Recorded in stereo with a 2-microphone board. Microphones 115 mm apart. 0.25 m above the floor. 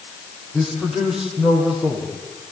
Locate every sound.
0.5 s a man speaking: centre (ahead or behind), 9.5 m; by 2.1 s 10° right (ahead or behind), 9 m